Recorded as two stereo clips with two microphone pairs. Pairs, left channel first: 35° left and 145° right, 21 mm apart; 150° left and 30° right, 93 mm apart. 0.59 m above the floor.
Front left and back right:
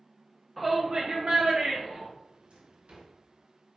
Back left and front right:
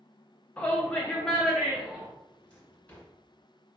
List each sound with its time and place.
0.6 s a shout: 115° left, 0.6 m; by 2.1 s 125° right, 1.5 m
2.3 s a drawer: 135° right, 1.9 m